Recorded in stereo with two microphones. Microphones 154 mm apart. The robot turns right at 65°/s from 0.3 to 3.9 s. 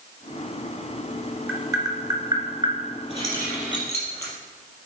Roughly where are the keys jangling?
Right.